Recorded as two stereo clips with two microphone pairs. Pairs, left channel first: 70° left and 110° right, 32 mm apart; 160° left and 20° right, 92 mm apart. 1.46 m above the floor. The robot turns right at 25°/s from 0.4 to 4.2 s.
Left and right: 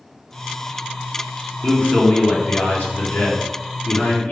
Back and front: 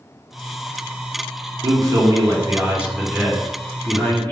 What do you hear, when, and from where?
1.6 s a man speaking: 25° left, 1.1 m; by 4.3 s 90° left, 1.1 m